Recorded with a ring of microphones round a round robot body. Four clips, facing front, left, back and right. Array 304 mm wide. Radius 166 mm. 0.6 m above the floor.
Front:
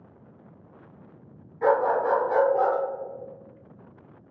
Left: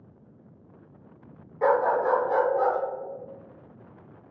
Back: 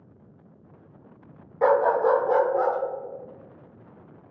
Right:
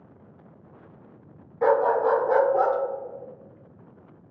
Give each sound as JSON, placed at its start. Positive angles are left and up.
{"t": 1.6, "sound": "a dog barking", "azimuth_deg": 180, "distance_m": 1.0}